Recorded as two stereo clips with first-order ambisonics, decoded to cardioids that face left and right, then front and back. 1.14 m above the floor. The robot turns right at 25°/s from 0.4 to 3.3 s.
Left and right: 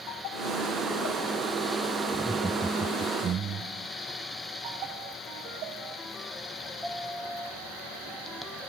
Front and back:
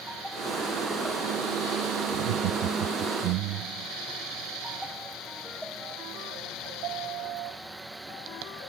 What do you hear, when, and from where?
2.1 s laughter: straight behind; by 3.9 s 150° right